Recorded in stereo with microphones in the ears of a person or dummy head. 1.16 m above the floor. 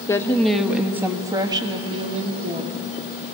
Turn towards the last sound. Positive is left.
turn(degrees=-35)  # may be behind; listen again after turning